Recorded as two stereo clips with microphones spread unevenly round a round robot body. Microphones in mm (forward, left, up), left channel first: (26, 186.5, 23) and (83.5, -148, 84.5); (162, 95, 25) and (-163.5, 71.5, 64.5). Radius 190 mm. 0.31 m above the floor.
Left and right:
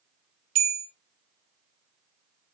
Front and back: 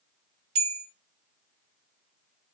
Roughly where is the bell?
Behind right.